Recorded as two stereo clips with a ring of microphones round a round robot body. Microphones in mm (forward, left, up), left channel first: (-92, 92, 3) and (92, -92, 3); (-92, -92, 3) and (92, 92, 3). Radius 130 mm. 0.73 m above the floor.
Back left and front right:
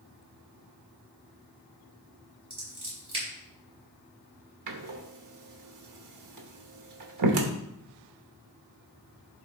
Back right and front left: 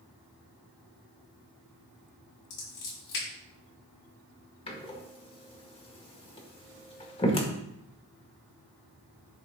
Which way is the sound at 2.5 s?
115° right.